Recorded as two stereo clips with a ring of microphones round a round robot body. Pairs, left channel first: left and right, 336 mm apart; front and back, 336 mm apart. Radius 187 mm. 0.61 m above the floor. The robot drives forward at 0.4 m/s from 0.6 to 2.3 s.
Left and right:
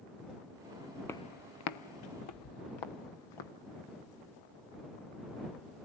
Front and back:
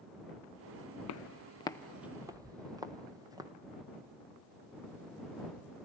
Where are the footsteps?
10° left, 0.7 m; by 3.5 s 100° left, 2 m.